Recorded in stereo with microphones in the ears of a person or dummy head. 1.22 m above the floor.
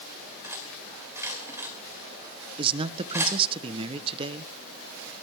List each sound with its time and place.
0.4 s cutlery clinking: 20° right (ahead or behind), 2.5 m
2.6 s a man speaking: 25° right (ahead or behind), 0.8 m